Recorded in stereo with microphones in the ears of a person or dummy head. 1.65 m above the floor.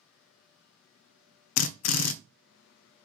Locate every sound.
1.6 s a drill: 85° left, 0.5 m